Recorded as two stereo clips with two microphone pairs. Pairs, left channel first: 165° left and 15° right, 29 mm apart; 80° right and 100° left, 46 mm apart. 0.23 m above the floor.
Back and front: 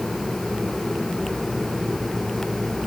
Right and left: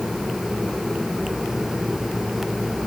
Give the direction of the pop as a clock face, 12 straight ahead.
I don't hear a pop.